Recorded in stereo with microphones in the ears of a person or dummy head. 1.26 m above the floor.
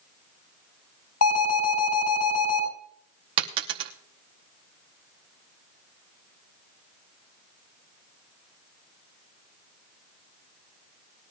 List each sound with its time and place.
1.2 s an alarm: 80° left, 5.5 m
3.4 s a dropped coin: 25° right (ahead or behind), 0.8 m